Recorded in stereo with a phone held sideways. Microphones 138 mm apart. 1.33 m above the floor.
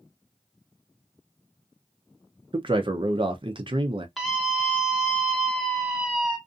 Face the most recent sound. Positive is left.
turn(degrees=0)  # may be behind; listen again after turning